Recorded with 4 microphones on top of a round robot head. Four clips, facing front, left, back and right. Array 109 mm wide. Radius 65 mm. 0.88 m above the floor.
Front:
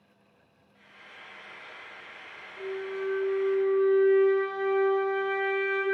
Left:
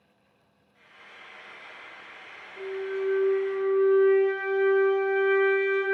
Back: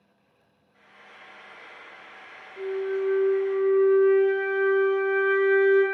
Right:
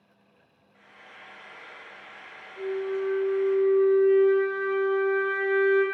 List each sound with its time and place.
0.7 s frying: 130° right, 1.1 m
2.6 s a flute: straight behind, 0.8 m